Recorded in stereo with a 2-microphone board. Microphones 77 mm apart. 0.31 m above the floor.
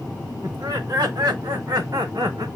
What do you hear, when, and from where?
0.4 s laughter: 70° right (ahead or behind), 3 m; by 2.5 s 60° right (ahead or behind), 2 m